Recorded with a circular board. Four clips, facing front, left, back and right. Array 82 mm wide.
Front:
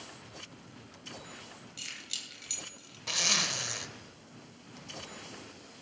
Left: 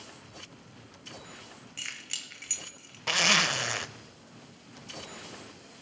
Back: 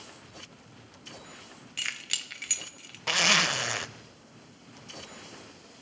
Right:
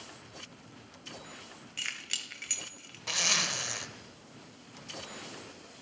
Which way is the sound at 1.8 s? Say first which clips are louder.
Right 3 dB, back 8 dB; 165° right.